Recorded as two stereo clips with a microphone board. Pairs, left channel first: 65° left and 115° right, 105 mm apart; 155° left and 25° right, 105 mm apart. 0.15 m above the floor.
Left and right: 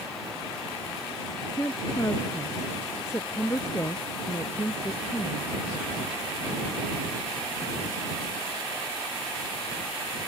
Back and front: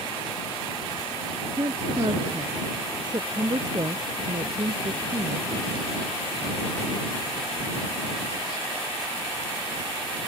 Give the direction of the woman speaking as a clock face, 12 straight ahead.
12 o'clock.